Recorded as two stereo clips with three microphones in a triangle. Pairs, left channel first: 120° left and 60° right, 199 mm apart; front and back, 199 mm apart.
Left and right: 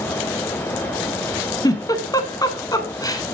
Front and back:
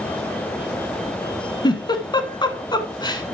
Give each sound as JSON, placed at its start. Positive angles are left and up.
{"t": 1.6, "sound": "a giggle", "azimuth_deg": 55, "distance_m": 1.2}